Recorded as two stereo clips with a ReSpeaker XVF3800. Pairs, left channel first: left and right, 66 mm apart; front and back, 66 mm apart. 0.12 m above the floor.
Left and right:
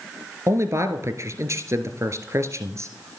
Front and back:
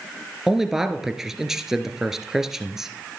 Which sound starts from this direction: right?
A man speaking, at 0.5 s.